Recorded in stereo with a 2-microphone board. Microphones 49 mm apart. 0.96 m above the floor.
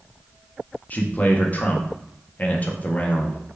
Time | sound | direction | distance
0.9 | a man speaking | 35° left (ahead or behind) | 0.7 m